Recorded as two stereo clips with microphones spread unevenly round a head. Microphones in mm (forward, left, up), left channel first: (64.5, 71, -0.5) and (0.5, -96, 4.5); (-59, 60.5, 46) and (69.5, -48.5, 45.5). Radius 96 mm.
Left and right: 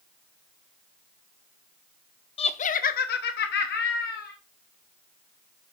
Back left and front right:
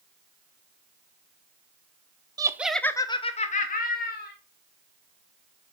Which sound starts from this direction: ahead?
Laughter, at 2.4 s.